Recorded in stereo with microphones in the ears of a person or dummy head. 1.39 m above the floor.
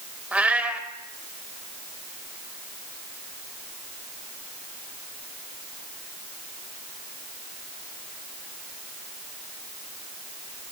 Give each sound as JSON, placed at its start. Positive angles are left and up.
{"t": 0.3, "sound": "a cat meowing", "side_deg": -10, "distance_m": 2.0}